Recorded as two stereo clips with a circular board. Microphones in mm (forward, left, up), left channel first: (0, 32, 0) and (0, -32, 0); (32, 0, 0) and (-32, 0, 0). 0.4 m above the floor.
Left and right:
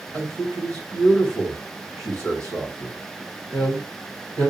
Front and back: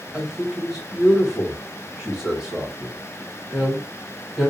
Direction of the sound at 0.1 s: 100° right.